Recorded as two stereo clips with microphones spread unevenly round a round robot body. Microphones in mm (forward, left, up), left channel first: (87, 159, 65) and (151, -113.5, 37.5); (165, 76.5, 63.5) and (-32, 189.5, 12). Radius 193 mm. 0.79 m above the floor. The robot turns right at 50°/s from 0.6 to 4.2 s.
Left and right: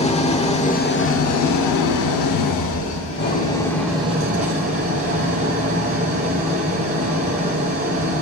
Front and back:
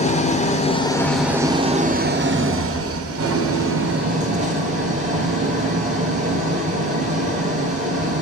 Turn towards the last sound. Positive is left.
turn(degrees=-145)